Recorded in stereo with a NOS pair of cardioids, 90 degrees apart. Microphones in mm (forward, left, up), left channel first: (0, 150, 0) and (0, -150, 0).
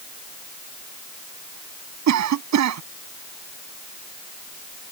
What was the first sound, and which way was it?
A cough, 65° right.